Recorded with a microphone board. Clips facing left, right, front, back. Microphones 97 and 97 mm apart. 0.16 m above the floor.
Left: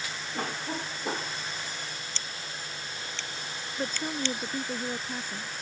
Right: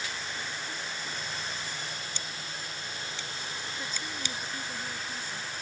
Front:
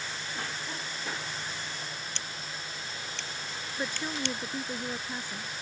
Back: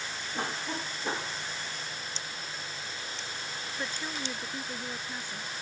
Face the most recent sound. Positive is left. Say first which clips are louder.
# left 11 dB, front 4 dB
turn(degrees=70)